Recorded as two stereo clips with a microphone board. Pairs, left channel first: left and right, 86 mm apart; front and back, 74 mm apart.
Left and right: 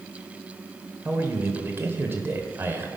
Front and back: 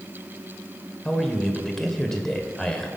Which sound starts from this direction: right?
A man speaking, at 1.1 s.